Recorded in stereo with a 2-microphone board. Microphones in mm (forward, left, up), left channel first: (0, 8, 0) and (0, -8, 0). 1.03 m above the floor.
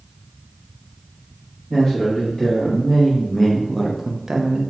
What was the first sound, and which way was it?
A man speaking, 40° left (ahead or behind).